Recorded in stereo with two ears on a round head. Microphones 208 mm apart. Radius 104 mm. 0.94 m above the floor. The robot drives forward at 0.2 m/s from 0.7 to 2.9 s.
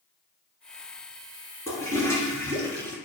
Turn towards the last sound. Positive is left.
turn(degrees=10)  # may be behind; listen again after turning